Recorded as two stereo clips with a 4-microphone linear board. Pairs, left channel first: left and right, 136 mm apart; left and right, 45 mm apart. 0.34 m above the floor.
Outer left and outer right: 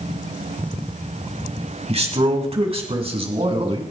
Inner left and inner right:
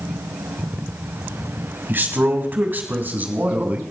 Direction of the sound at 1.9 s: 50° right (ahead or behind).